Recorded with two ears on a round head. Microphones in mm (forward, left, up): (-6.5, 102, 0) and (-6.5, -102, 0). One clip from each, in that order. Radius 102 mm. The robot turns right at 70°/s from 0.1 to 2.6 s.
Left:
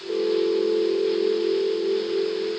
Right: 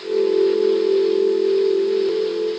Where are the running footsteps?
No running footsteps in this recording.